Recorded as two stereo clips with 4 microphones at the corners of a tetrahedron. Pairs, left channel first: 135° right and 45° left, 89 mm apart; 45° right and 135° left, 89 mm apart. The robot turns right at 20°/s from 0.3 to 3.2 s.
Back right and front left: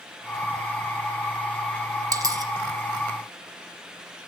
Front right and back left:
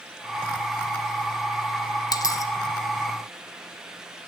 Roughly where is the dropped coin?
Ahead.